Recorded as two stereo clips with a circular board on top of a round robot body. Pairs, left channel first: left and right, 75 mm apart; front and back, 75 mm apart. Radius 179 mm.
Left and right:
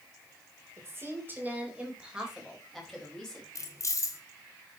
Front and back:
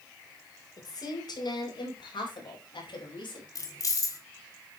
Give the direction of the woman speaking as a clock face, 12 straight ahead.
1 o'clock.